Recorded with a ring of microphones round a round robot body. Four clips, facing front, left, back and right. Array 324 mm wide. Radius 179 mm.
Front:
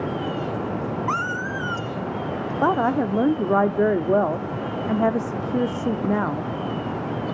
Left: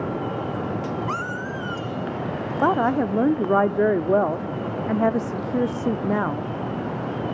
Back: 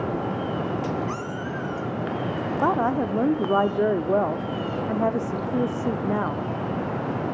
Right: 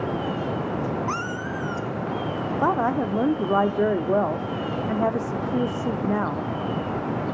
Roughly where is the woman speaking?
Ahead left.